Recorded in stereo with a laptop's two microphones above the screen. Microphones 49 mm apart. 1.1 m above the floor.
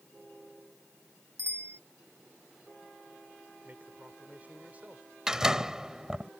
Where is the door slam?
15° right (ahead or behind).